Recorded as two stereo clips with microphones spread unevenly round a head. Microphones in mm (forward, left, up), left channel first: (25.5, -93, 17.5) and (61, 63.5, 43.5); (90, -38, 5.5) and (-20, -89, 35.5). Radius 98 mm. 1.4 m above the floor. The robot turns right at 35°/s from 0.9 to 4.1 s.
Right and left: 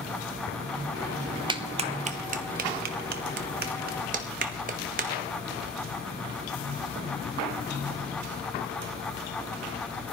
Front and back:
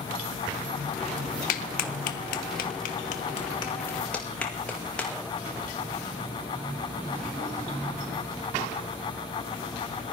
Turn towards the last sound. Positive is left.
turn(degrees=115)